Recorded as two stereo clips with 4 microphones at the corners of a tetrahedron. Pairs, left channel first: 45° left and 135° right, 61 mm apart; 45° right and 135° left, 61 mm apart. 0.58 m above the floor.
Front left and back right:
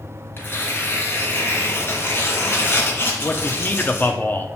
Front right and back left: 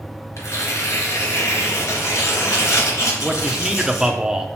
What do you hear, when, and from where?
0.4 s tearing paper: 10° right, 1.9 m
3.2 s a man speaking: 65° left, 0.8 m